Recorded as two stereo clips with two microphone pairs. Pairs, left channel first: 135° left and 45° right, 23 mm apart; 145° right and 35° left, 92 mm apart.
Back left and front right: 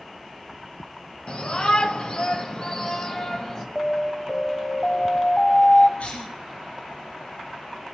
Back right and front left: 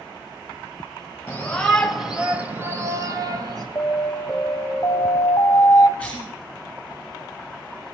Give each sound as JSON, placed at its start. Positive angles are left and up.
{"t": 1.3, "sound": "a shout", "azimuth_deg": 150, "distance_m": 1.2}
{"t": 3.8, "sound": "an alarm", "azimuth_deg": -175, "distance_m": 0.9}
{"t": 6.0, "sound": "a cough", "azimuth_deg": 130, "distance_m": 2.0}